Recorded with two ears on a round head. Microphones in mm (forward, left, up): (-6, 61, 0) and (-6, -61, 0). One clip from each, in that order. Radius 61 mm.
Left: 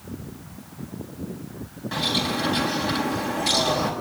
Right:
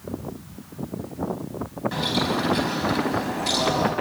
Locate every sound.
1.9 s a bird: 5° left (ahead or behind), 5 m